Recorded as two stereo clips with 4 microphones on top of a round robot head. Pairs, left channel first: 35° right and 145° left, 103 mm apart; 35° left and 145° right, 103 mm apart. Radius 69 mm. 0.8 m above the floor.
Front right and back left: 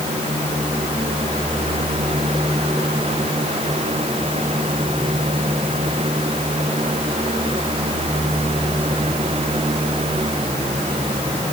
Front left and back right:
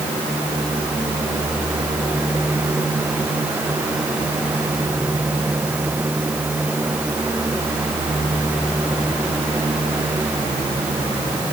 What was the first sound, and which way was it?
Only background noise.